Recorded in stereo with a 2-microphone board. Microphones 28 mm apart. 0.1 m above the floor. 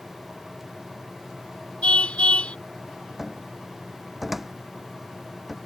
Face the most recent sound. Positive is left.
turn(degrees=-10)  # may be behind; listen again after turning